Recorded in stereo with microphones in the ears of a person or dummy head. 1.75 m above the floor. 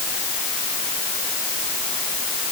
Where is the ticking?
No ticking in this recording.